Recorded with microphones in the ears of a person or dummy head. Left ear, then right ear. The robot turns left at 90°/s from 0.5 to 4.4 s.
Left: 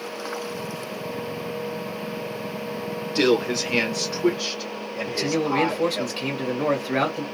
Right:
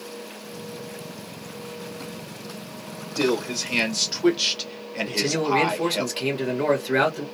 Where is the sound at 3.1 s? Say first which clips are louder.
Left 3 dB; 55° left, 1.6 m; by 6.1 s 60° right, 1.6 m.